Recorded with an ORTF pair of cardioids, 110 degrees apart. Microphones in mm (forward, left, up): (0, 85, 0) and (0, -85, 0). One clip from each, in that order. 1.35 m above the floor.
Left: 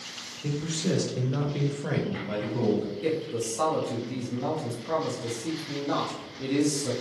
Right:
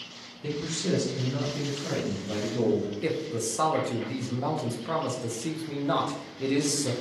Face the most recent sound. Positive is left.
turn(degrees=-15)